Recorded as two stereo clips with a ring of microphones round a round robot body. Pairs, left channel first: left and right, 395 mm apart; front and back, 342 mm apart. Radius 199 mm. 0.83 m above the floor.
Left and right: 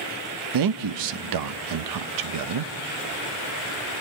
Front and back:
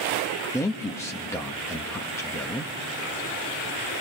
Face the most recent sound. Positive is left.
turn(degrees=-80)